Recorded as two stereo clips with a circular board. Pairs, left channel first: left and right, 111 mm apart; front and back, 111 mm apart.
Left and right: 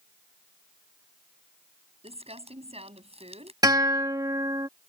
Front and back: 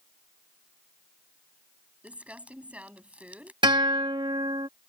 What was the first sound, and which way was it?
Crumpling, 105° right.